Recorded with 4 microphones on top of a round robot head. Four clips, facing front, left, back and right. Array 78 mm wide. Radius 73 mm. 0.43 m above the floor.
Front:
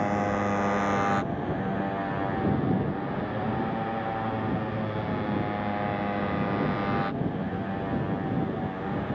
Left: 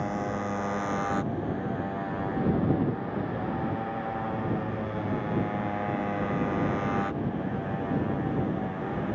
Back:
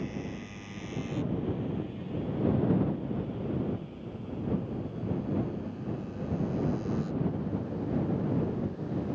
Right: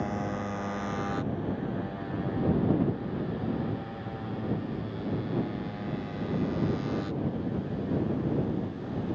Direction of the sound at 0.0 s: 10° left.